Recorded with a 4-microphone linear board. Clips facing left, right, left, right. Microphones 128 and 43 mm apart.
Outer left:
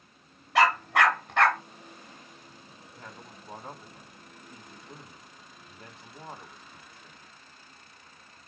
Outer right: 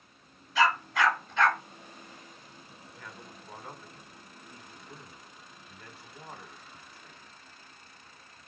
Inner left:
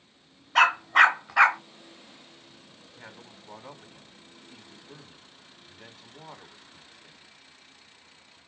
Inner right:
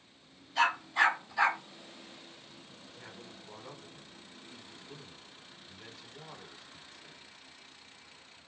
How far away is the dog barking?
About 1.1 m.